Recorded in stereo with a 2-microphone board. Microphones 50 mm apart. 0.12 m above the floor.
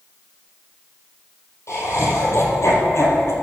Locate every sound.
1.7 s laughter: 70° left (ahead or behind), 3.5 m; by 3.3 s 60° left (ahead or behind), 2.5 m